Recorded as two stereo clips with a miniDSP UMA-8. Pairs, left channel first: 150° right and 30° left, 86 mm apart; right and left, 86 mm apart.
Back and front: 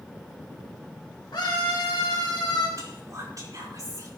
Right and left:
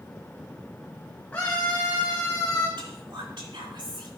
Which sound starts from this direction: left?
Whispering, at 2.8 s.